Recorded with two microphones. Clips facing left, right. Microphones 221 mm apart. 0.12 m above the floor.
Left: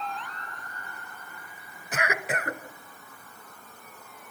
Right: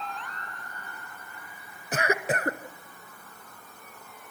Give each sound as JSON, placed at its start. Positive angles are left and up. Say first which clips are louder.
{"t": 1.9, "sound": "a cough", "louder": "right 4 dB", "side_deg": -35, "distance_m": 1.3}